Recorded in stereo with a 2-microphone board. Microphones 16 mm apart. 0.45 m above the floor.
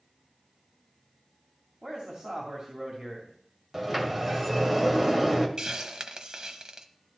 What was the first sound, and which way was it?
A man speaking, 65° right (ahead or behind).